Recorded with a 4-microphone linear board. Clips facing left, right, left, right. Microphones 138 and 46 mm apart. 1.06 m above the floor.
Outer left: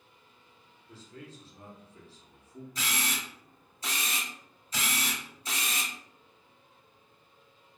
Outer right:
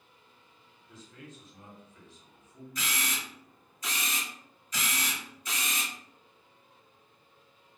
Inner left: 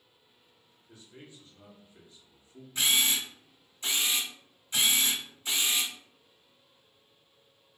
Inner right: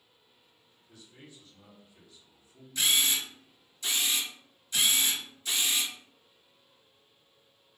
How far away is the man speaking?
About 0.8 m.